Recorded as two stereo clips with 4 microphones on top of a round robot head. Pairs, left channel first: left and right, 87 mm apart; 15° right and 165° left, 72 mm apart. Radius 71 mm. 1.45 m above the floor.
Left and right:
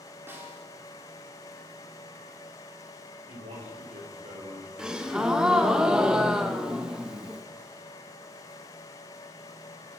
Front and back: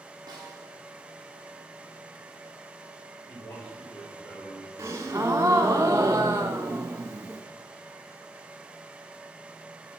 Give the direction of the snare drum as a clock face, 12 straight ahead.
5 o'clock.